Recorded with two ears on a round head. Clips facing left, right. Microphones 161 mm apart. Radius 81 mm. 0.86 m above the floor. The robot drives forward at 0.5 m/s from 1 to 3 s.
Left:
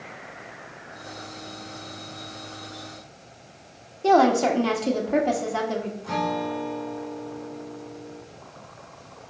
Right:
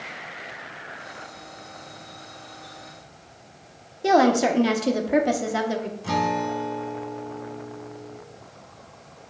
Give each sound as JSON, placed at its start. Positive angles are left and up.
{"t": 4.0, "sound": "a woman speaking", "side_deg": -15, "distance_m": 1.0}
{"t": 6.0, "sound": "a guitar", "side_deg": -65, "distance_m": 1.7}